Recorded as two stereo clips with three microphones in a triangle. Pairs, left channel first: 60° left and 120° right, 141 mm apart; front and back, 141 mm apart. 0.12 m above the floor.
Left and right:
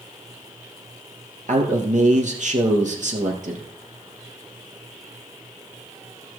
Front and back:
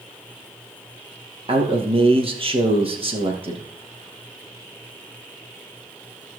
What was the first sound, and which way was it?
A man speaking, 135° right.